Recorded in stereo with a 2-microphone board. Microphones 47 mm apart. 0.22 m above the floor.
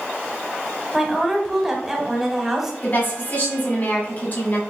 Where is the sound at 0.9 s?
5° right (ahead or behind), 1.0 m.